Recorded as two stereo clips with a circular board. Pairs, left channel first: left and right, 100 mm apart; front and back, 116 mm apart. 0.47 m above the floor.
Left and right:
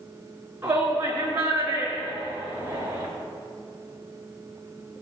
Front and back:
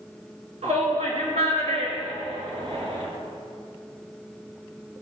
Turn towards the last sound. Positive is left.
turn(degrees=-155)